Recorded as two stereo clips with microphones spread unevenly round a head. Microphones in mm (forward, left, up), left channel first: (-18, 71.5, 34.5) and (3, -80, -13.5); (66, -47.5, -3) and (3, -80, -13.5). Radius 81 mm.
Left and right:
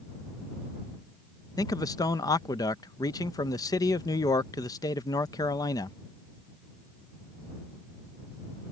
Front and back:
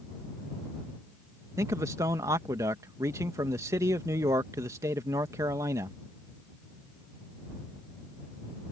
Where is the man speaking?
175° left.